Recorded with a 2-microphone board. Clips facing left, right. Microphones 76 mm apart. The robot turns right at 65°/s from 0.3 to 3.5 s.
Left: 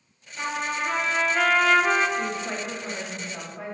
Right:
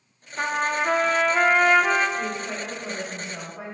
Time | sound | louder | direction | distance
0.4 | a trumpet | right 4 dB | 115° right | 0.5 m
2.2 | a woman speaking | even | 10° left (ahead or behind) | 0.9 m